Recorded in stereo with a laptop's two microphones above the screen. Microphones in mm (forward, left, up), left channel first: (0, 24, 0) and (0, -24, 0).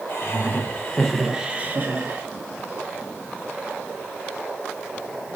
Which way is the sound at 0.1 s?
35° left (ahead or behind).